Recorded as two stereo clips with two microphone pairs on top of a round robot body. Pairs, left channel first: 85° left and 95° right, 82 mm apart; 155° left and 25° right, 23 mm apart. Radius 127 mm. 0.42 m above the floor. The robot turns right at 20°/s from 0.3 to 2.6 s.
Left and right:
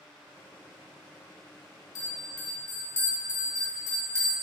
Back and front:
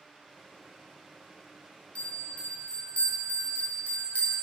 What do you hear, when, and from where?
1.9 s a bell: 120° left, 2.5 m; by 4.3 s 135° left, 2.5 m